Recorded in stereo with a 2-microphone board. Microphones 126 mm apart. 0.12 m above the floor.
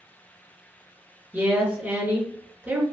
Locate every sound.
1.3 s a woman speaking: 15° right (ahead or behind), 1.9 m